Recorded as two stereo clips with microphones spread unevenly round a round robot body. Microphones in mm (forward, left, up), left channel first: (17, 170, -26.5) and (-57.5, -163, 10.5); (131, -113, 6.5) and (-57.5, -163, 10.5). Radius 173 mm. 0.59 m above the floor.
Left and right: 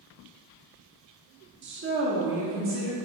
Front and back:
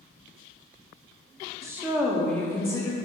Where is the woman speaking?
110° right, 0.9 m; by 3.0 s 50° right, 1.3 m.